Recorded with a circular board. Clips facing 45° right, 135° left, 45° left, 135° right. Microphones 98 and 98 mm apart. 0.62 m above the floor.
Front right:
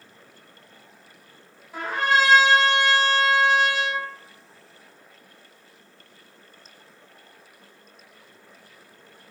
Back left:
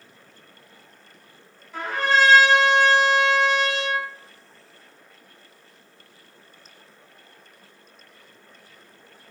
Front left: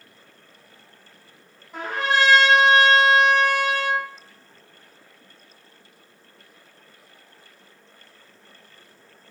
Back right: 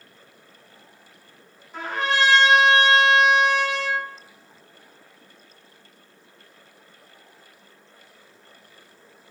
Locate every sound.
1.7 s a trumpet: 30° left, 1.7 m